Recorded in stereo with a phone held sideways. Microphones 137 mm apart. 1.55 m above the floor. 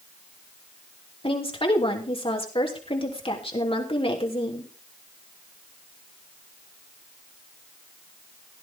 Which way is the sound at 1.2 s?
40° left (ahead or behind).